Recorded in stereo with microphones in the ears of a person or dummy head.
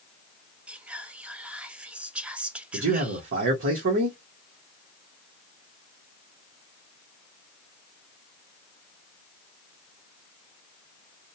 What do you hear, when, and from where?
0.7 s whispering: 5° right (ahead or behind), 0.5 m
2.7 s a man speaking: 65° right (ahead or behind), 1.0 m